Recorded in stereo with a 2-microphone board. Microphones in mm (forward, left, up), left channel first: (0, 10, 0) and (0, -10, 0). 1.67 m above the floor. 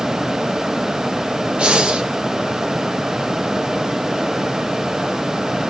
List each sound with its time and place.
1.6 s breathing: 60° right (ahead or behind), 1.2 m